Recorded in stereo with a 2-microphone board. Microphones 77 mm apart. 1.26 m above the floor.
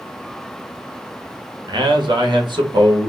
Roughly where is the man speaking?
Right.